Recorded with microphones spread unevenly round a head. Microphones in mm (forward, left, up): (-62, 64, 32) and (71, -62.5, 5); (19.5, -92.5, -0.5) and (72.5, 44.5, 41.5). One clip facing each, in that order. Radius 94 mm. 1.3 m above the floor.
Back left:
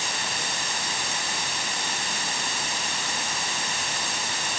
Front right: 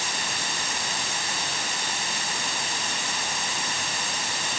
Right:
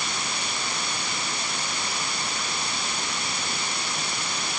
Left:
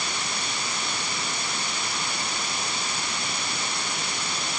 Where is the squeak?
I don't hear a squeak.